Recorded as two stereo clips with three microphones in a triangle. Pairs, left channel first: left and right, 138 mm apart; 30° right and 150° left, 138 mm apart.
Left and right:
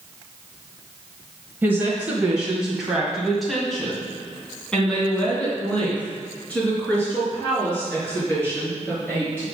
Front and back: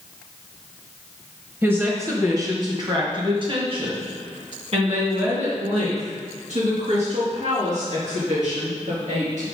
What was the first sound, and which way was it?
A woman speaking, 150° right.